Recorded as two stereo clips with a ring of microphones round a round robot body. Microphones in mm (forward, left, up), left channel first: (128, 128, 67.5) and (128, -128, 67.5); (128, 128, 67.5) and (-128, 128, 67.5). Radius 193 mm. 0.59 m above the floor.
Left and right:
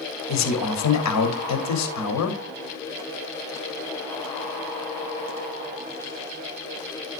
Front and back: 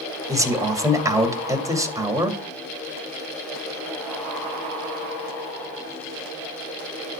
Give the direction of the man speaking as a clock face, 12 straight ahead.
9 o'clock.